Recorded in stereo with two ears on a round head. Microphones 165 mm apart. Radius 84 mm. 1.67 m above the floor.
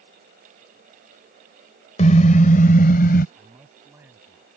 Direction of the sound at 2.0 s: 40° left (ahead or behind).